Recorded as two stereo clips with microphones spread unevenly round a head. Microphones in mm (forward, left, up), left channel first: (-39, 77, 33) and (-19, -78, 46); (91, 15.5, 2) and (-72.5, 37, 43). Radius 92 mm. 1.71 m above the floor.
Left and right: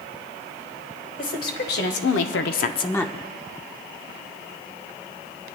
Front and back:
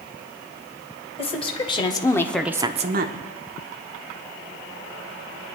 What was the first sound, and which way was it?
A woman speaking, 55° left.